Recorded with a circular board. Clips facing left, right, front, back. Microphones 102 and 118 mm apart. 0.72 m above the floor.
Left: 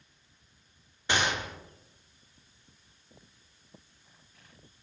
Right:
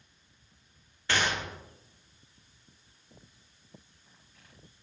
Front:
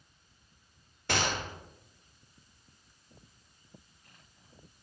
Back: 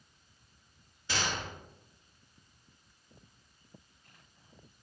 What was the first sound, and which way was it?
A gunshot, 20° left.